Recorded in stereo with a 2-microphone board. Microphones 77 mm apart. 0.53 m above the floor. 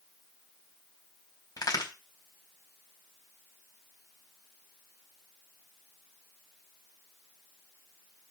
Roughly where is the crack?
Left.